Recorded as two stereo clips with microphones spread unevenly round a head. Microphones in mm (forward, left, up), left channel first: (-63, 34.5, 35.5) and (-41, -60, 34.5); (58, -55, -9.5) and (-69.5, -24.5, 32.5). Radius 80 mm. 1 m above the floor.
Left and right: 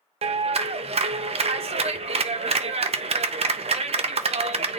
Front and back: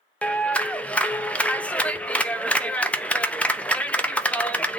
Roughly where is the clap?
Right.